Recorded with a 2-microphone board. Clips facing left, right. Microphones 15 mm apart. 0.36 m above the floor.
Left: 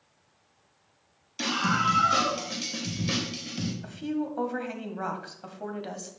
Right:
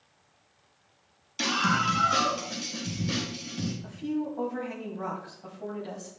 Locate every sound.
1.4 s a scream: 15° right (ahead or behind), 2.5 m; by 3.7 s 50° left (ahead or behind), 2 m
3.8 s a woman speaking: 60° left (ahead or behind), 1.6 m